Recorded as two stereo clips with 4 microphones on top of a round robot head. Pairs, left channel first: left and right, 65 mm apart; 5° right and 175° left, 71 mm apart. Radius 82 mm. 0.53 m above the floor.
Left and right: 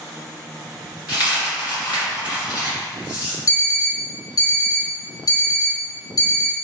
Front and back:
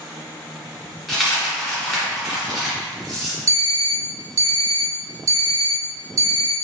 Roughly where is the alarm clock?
Behind left.